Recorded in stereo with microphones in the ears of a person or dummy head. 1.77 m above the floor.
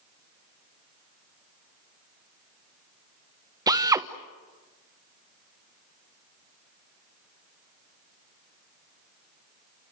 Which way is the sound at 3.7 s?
25° right (ahead or behind).